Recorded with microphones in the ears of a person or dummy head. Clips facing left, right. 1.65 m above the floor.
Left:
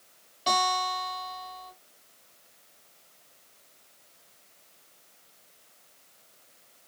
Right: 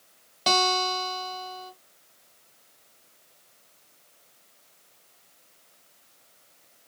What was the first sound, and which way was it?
A guitar, 65° right (ahead or behind).